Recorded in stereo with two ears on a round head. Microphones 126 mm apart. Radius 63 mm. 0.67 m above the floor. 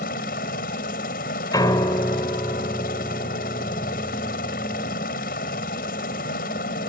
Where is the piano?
25° left (ahead or behind).